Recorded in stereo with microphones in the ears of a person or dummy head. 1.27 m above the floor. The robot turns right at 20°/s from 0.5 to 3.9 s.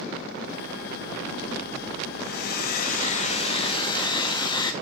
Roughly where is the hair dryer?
Behind left.